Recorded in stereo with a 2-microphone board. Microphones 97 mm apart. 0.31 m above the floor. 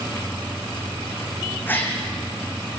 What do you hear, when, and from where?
1.7 s a gasp: 20° left (ahead or behind), 3.5 m